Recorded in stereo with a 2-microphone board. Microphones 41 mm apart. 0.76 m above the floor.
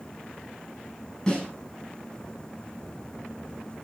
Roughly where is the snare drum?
Centre.